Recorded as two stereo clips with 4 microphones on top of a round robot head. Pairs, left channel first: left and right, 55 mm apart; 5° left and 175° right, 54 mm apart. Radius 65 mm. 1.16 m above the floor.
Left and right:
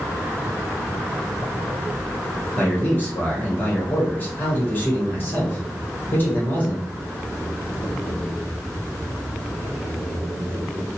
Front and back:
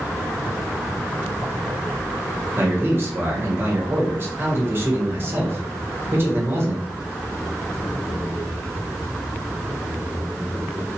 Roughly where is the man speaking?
Behind left.